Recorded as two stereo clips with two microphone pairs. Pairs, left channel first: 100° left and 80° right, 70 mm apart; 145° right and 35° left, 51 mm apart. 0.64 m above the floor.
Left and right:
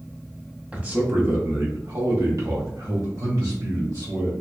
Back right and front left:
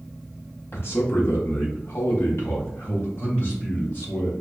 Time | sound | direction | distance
0.7 | a man speaking | 145° right | 0.9 m